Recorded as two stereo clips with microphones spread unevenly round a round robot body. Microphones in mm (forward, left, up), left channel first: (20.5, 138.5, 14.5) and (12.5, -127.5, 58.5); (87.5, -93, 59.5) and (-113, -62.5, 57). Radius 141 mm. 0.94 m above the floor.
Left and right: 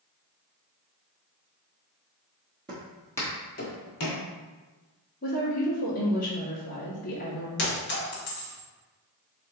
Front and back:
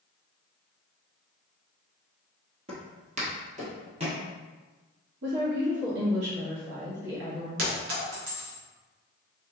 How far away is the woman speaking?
About 1.6 m.